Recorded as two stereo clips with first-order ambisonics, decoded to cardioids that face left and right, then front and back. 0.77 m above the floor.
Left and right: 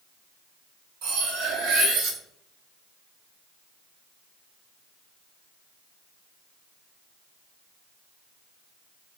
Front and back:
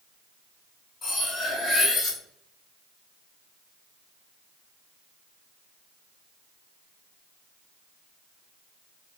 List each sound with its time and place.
1.0 s cutlery clinking: 70° right, 2 m